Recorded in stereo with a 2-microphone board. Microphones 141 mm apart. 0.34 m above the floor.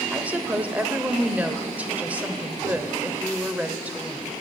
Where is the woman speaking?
10° right (ahead or behind), 0.9 m.